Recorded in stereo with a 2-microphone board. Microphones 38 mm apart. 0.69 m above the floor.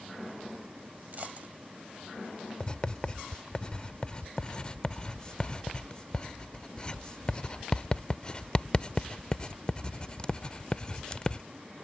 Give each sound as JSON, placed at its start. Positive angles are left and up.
{"t": 1.1, "sound": "a dropped coin", "side_deg": -50}
{"t": 2.6, "sound": "writing", "side_deg": 25}